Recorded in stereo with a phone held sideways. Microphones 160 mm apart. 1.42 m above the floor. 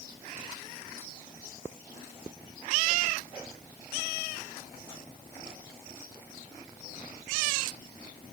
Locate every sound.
Only background noise.